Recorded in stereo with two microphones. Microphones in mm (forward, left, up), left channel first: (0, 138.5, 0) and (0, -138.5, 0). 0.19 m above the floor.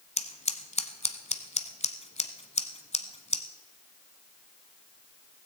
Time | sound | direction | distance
0.2 | scissors | 25° left (ahead or behind) | 0.9 m